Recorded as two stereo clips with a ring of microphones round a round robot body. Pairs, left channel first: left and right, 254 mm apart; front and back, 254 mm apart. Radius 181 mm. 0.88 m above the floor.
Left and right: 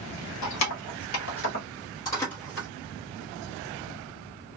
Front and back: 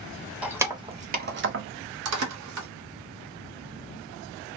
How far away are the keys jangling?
About 1.0 m.